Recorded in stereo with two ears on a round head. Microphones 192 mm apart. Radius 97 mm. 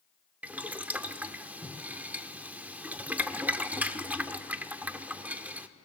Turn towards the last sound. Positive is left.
turn(degrees=-5)  # may be behind; listen again after turning